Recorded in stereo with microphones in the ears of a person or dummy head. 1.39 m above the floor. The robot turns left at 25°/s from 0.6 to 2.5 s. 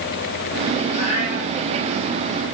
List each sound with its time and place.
0.9 s a cat meowing: 45° left (ahead or behind), 5.5 m; by 1.5 s 60° left (ahead or behind), 5.5 m